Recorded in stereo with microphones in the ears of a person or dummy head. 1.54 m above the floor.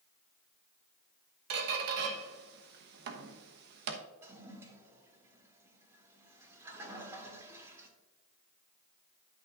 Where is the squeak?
60° right (ahead or behind), 1.0 m.